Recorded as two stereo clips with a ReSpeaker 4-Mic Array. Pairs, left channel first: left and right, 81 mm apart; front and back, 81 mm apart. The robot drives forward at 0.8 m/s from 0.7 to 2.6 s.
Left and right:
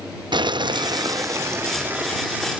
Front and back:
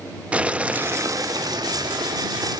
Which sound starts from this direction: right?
Boiling, at 0.3 s.